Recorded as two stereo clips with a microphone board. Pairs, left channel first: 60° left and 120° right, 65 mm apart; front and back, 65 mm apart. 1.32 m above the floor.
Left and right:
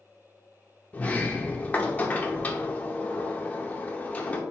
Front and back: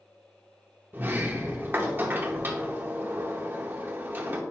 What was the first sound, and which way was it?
A sliding door, 125° left.